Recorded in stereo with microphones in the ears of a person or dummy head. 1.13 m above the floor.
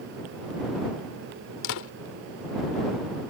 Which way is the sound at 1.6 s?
65° left (ahead or behind).